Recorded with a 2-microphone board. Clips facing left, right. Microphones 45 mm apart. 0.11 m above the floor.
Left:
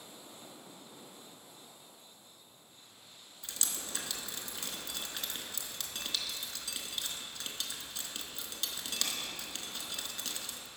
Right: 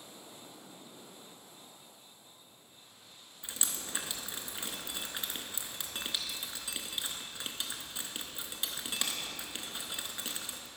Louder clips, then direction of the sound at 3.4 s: Right 1 dB; 20° right (ahead or behind).